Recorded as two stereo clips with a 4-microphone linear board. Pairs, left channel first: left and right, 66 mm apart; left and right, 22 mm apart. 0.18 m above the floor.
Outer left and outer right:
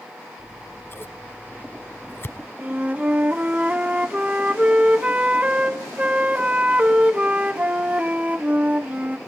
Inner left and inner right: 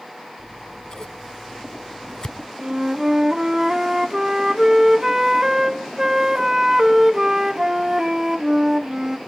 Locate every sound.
0.4 s scissors: 35° left (ahead or behind), 0.9 m
2.6 s a flute: 20° right (ahead or behind), 0.9 m